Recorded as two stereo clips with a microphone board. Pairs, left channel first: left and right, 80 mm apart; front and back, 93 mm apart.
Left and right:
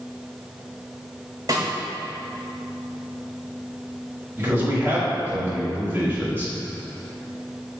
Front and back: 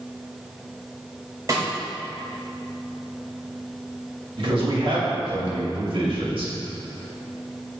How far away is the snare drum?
About 1.9 m.